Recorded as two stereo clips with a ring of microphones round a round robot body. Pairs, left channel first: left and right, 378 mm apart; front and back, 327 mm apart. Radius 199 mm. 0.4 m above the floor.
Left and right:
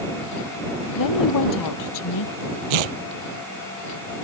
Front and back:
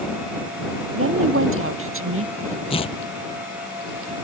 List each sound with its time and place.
0.9 s a woman speaking: 130° left
2.7 s tearing paper: 75° right